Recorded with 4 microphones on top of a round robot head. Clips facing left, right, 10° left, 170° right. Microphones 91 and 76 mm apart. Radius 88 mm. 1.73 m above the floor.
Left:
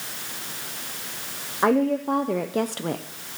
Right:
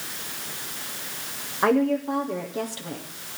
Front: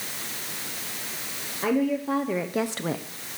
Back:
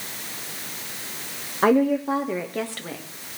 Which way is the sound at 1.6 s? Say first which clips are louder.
Left 1 dB, back 5 dB; 175° left.